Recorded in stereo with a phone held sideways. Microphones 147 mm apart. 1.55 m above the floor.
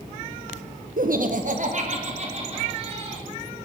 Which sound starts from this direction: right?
Laughter, at 1.0 s.